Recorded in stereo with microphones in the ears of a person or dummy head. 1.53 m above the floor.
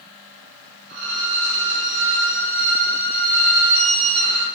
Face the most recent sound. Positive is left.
turn(degrees=-65)  # may be behind; listen again after turning